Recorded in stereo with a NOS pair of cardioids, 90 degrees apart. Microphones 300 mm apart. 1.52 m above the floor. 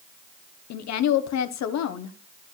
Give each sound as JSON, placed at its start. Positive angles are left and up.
{"t": 0.7, "sound": "a woman speaking", "azimuth_deg": 65, "distance_m": 1.1}